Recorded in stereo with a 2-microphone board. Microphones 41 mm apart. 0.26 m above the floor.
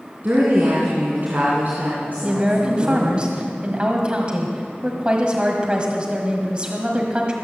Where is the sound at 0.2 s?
45° right (ahead or behind), 3 m.